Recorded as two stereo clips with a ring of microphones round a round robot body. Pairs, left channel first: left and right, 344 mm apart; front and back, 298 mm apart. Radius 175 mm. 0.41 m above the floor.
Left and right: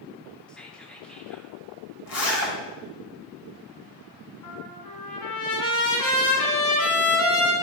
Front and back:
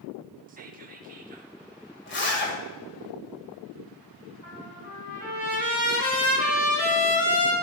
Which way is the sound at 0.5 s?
175° left.